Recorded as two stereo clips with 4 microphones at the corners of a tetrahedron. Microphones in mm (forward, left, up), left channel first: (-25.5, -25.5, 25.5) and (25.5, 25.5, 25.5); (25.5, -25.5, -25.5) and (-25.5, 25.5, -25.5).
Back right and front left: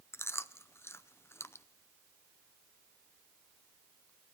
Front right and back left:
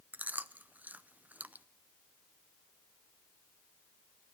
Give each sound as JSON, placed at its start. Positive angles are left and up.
{"t": 0.1, "sound": "chewing", "azimuth_deg": -165, "distance_m": 0.5}